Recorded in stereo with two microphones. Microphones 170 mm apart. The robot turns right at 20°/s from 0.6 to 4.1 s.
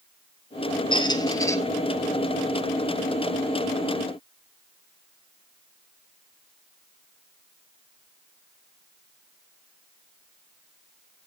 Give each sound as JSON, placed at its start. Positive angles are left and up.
{"t": 0.9, "sound": "a squeak", "side_deg": 30, "distance_m": 0.6}